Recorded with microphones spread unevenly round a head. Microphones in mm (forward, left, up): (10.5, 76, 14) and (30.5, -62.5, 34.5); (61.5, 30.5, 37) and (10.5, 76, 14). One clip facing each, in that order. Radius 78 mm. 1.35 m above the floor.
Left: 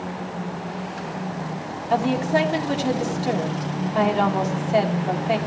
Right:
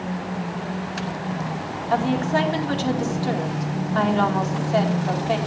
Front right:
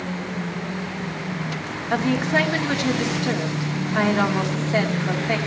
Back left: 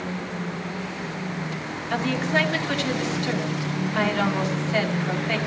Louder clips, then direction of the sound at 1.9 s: Left 1 dB, front right 3 dB; 20° left.